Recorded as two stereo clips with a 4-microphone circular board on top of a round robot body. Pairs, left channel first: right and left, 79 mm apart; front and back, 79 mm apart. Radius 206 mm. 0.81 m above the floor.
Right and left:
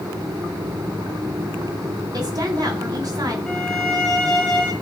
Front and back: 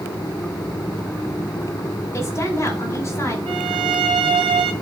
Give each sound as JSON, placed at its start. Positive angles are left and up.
{"t": 2.1, "sound": "a woman speaking", "azimuth_deg": 55, "distance_m": 3.5}
{"t": 3.5, "sound": "a violin", "azimuth_deg": -170, "distance_m": 0.5}